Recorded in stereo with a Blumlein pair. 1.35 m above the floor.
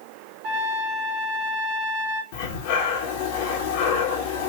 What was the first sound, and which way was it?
A trumpet, 35° right.